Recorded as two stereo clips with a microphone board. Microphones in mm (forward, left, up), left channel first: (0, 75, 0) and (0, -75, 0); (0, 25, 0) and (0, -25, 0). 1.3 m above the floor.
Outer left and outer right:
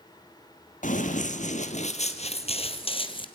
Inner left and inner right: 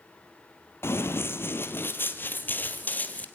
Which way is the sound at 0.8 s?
60° left (ahead or behind).